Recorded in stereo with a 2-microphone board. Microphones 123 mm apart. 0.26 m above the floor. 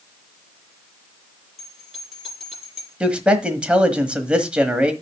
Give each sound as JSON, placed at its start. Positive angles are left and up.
{"t": 1.6, "sound": "a bell", "side_deg": 0, "distance_m": 6.0}
{"t": 3.0, "sound": "a man speaking", "side_deg": -10, "distance_m": 1.3}